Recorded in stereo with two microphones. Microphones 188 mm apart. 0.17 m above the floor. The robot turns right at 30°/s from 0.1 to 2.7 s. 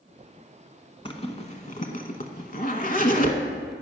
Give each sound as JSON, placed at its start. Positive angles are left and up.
{"t": 1.1, "sound": "a zipper", "side_deg": 30, "distance_m": 0.8}